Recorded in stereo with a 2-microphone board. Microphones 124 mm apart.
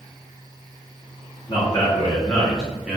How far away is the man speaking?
About 1.0 m.